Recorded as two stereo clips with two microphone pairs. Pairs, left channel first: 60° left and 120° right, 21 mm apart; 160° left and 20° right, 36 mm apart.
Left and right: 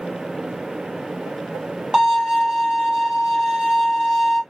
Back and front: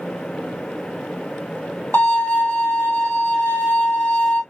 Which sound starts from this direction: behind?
A violin, at 1.9 s.